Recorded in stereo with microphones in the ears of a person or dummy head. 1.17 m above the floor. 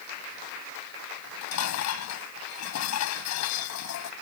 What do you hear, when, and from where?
1.2 s dishes clattering: 85° left